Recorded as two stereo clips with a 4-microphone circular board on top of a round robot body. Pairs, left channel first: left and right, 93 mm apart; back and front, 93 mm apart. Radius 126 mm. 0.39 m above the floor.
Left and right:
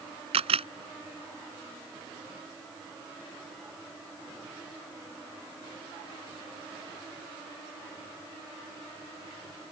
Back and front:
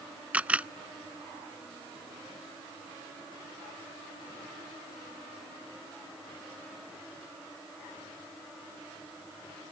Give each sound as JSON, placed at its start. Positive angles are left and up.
{"t": 0.3, "sound": "a camera shutter", "azimuth_deg": -75}